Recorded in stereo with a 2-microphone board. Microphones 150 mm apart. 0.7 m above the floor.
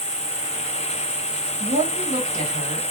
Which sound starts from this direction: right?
A woman speaking, at 1.6 s.